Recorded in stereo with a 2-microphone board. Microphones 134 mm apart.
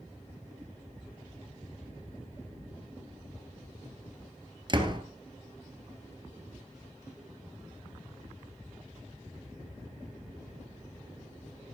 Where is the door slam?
35° right (ahead or behind), 1.6 m.